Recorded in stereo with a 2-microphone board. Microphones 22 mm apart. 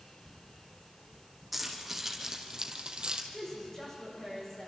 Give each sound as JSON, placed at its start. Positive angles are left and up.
{"t": 1.5, "sound": "keys jangling", "side_deg": -5, "distance_m": 4.0}
{"t": 3.3, "sound": "a woman speaking", "side_deg": 20, "distance_m": 8.5}